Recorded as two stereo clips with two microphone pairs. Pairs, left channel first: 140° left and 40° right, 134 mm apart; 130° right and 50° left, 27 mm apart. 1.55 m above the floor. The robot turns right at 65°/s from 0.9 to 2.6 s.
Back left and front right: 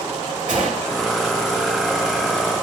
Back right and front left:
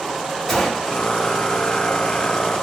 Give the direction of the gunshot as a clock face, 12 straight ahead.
2 o'clock.